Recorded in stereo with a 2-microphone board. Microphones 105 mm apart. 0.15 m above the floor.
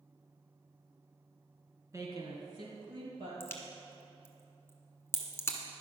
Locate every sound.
1.9 s a woman speaking: 30° right (ahead or behind), 1.8 m; by 3.3 s 60° right (ahead or behind), 3.5 m
3.4 s a crack: 25° left (ahead or behind), 1.2 m